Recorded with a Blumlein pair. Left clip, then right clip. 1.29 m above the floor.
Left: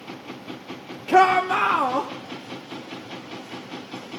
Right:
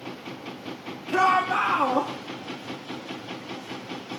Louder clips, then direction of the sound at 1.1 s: Left 4 dB; 35° left.